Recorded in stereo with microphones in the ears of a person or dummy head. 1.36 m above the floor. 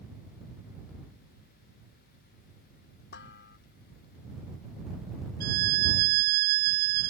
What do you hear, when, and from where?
3.1 s dishes clattering: 70° left (ahead or behind)
5.4 s a violin: 50° right (ahead or behind)